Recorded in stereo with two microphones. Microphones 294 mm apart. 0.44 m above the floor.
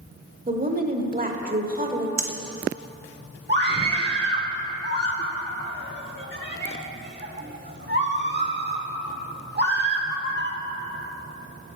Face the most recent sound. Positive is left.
turn(degrees=-35)  # may be behind; listen again after turning